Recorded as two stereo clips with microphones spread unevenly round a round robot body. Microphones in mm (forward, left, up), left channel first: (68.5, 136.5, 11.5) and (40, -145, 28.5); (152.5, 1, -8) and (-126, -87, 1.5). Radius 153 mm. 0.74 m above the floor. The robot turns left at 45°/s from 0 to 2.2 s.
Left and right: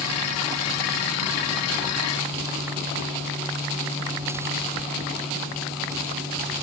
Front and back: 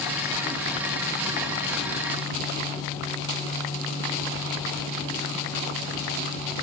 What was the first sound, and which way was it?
Only background noise.